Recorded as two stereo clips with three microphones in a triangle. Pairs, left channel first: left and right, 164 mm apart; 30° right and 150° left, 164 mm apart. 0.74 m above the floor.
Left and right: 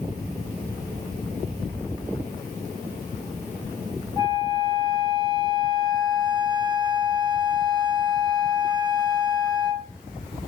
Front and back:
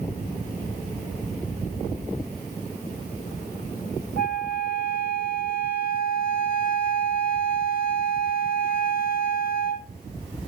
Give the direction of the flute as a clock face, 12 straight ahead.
1 o'clock.